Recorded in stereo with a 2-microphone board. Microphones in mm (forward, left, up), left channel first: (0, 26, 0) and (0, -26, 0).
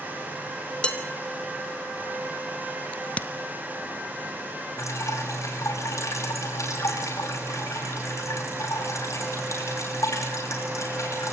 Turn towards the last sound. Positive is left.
turn(degrees=75)  # may be behind; listen again after turning